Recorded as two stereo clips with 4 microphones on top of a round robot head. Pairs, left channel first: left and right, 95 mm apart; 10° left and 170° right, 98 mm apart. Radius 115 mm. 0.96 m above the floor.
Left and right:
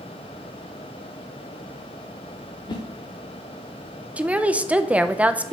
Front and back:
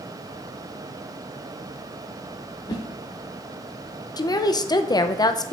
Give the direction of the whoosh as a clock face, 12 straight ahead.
10 o'clock.